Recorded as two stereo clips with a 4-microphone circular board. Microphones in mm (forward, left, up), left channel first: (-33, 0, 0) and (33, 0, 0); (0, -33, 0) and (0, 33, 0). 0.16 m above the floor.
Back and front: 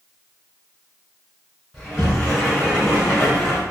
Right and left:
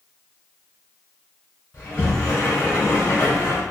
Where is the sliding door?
110° right, 1.4 m.